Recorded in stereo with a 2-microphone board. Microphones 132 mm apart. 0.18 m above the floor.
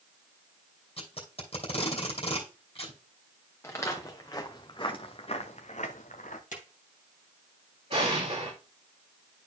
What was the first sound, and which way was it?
Tape being pulled, 50° left (ahead or behind).